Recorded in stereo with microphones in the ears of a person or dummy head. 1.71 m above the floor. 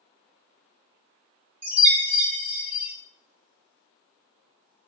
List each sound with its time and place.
1.6 s a chime: 25° right (ahead or behind), 0.8 m